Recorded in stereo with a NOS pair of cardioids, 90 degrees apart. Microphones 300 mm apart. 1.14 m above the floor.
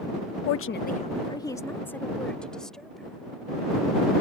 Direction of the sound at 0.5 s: 60° left.